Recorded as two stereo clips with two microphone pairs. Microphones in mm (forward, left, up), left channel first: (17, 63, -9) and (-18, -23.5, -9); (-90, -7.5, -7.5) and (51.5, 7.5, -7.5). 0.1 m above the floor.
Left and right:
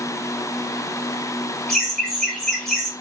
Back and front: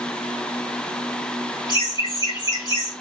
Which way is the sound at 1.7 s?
145° left.